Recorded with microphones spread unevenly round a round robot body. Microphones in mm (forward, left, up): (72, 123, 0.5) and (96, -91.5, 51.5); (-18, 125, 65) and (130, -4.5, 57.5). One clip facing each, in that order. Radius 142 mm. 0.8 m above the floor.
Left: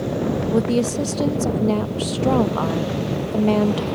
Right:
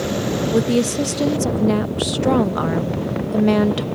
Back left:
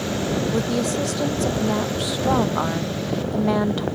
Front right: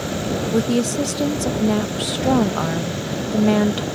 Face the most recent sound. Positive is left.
turn(degrees=0)